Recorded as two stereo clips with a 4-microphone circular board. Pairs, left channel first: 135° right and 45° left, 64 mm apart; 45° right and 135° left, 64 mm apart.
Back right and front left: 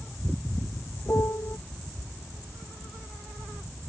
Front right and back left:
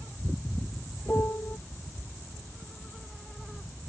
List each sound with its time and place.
1.1 s a piano: 95° right